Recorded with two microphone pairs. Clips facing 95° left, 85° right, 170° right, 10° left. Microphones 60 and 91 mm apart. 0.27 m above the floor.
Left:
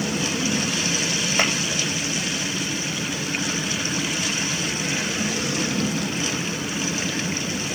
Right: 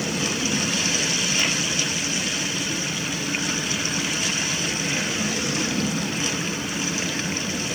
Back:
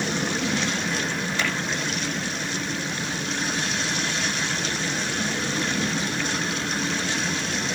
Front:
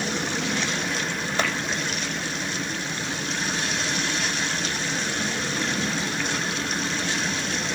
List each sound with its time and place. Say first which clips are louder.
1.4 s tapping: left 5 dB, front 3 dB; 60° left, 5.5 m